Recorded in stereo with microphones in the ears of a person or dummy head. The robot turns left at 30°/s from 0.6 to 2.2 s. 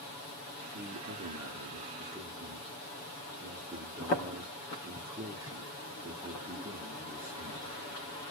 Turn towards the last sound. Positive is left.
turn(degrees=-165)